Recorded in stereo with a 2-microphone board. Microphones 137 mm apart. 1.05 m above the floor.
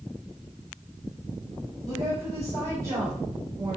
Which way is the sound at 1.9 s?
30° right (ahead or behind).